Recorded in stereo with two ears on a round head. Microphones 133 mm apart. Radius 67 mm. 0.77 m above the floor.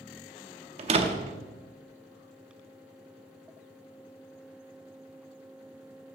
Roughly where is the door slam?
Right.